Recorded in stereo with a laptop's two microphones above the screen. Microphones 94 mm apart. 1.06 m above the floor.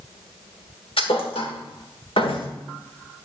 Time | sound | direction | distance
1.0 | a thud | 75° left (ahead or behind) | 1.6 m